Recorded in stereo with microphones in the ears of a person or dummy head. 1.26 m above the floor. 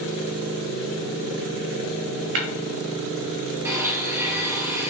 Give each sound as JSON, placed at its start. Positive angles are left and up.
{"t": 2.4, "sound": "tapping", "side_deg": -60, "distance_m": 0.9}
{"t": 3.6, "sound": "a blender", "side_deg": -15, "distance_m": 0.9}